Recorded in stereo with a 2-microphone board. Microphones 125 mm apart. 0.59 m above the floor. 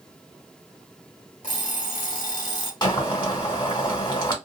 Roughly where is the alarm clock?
Left.